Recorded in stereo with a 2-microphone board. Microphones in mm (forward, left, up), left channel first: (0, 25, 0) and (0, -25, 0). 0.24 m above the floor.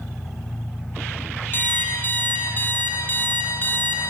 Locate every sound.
0.0 s an engine running: 60° left (ahead or behind), 4 m
1.5 s an alarm clock: 40° left (ahead or behind), 4 m